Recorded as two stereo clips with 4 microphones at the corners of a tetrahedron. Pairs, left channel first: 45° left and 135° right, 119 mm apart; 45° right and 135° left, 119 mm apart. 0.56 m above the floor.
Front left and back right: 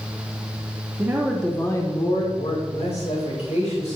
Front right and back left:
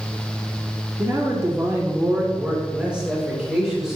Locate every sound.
1.0 s a man speaking: 175° left, 1.2 m; by 4.0 s 50° left, 3.5 m